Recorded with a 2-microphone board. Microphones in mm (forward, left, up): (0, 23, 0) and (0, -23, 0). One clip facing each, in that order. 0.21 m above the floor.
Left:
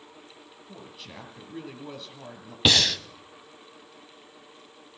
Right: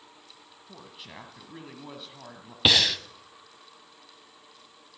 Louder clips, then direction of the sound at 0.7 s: Left 1 dB; 15° right (ahead or behind).